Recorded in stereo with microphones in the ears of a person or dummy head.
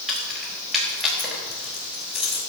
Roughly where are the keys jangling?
Centre.